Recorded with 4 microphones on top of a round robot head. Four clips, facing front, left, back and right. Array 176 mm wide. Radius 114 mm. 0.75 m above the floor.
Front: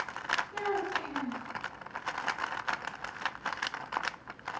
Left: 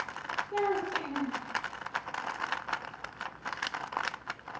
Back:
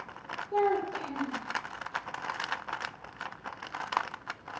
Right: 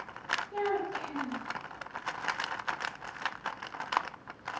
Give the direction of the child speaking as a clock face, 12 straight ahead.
7 o'clock.